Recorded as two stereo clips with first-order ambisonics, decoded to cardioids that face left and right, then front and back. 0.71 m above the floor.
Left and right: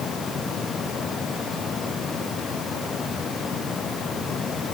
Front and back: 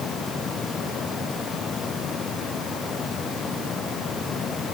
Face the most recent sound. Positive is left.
No sound to turn to.